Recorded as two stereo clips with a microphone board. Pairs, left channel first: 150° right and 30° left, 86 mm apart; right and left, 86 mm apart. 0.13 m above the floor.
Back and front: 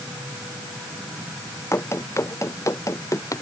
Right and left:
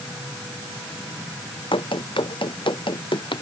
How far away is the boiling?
No boiling in this recording.